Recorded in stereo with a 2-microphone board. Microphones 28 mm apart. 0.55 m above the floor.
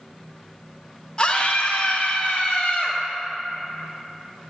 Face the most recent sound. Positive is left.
turn(degrees=35)  # may be behind; listen again after turning